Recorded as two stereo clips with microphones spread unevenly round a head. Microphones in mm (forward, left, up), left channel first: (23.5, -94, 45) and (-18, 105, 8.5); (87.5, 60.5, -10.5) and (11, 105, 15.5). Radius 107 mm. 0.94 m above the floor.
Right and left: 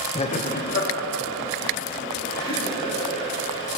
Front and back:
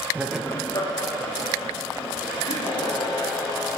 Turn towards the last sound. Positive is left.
turn(degrees=-30)